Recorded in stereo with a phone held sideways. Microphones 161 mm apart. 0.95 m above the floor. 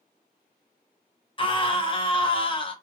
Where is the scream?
35° left (ahead or behind), 0.7 m.